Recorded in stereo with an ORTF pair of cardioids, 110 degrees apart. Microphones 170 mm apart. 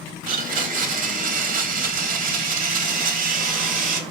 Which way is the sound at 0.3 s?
55° right.